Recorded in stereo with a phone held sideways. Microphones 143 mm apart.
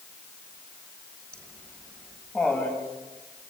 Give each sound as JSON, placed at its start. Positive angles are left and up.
{"t": 1.3, "sound": "laughter", "side_deg": 5, "distance_m": 4.5}